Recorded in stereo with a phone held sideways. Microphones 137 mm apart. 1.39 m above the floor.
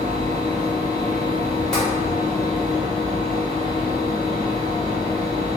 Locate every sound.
0.0 s a fan: 40° left (ahead or behind), 1.2 m
1.7 s tapping: 5° left (ahead or behind), 1.2 m